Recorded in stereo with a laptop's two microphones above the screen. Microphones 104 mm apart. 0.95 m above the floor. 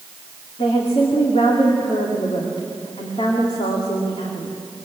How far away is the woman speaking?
About 2.5 m.